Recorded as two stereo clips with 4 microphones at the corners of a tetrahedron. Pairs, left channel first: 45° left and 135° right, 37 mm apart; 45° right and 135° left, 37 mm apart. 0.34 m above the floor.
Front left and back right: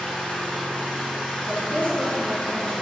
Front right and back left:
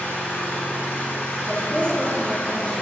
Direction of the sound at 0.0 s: 35° right.